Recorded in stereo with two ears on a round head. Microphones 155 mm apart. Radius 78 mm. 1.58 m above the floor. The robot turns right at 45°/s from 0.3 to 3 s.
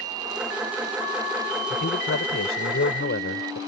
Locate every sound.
1.7 s a man speaking: 55° left; by 3.6 s 115° left